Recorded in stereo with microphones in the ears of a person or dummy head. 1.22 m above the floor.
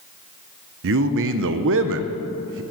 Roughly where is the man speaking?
Right.